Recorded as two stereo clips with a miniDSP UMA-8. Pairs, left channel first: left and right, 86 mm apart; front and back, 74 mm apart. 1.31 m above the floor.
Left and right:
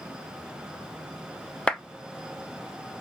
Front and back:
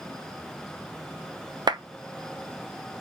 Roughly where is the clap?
Behind.